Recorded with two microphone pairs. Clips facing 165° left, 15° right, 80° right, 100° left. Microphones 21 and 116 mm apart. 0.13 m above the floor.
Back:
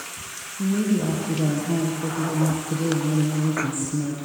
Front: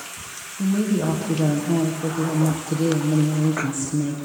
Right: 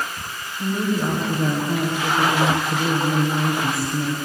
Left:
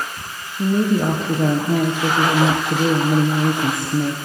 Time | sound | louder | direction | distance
0.6 | a woman speaking | front 1 dB, left 5 dB | 65° left | 4 m